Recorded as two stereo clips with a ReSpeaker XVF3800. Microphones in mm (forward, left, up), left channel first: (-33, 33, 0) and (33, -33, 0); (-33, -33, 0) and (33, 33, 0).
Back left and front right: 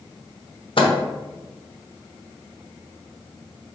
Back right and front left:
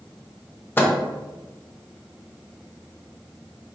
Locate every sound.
0.8 s a microwave: 155° left, 0.6 m